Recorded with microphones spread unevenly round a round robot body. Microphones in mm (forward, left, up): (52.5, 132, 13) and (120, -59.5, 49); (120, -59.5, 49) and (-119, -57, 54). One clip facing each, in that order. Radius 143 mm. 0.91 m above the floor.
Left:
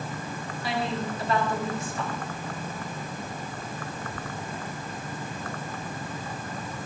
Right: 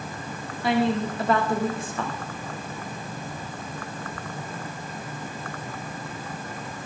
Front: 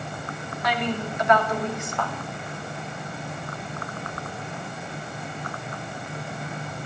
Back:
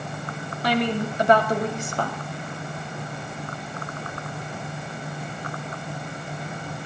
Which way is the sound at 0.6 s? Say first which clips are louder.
Right 7 dB, back 4 dB; 125° right.